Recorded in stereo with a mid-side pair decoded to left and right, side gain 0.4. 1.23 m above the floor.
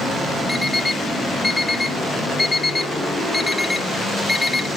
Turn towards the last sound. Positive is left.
turn(degrees=10)